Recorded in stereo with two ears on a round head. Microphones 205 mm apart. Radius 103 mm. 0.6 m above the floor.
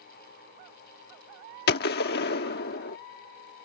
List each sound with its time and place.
1.7 s a gunshot: 45° left (ahead or behind)